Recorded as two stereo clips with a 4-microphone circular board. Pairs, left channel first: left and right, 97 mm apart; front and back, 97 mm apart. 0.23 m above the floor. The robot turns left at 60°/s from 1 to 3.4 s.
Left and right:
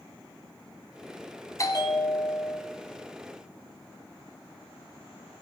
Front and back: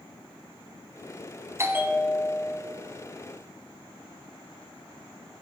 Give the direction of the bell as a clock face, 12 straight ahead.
8 o'clock.